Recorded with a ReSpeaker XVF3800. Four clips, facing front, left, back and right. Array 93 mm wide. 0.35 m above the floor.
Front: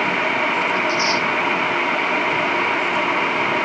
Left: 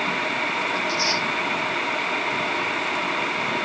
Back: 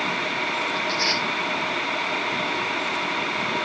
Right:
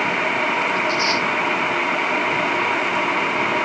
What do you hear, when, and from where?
0.8 s tearing paper: 130° right, 5.5 m